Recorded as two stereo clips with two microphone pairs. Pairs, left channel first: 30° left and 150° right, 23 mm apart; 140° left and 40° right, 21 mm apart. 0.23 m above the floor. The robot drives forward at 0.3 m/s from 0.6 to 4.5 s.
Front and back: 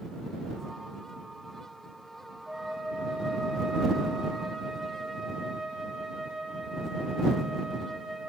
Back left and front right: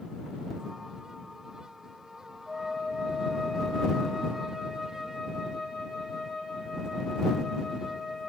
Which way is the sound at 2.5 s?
110° right.